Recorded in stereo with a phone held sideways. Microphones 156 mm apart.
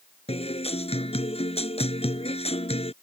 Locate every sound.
0.3 s a guitar: 40° left (ahead or behind)